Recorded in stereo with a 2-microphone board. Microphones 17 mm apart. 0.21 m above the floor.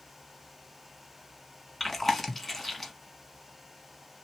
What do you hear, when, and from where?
1.8 s chewing: 10° left (ahead or behind), 0.8 m